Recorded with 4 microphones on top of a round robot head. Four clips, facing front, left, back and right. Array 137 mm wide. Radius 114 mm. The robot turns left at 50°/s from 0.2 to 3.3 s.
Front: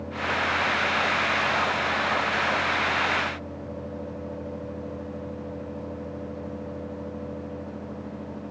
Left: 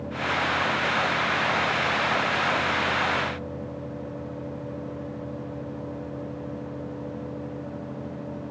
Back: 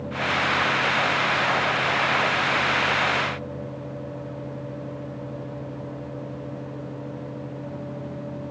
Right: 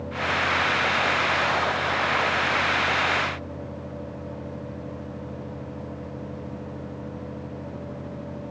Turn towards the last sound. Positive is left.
No sound to turn to.